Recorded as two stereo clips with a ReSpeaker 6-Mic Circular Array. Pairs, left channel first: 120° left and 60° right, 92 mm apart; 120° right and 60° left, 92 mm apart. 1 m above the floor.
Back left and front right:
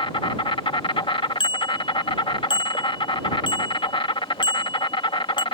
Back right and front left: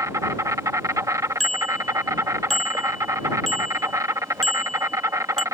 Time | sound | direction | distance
0.0 | an insect | 115° left | ?
1.4 | a bicycle bell | 155° left | ?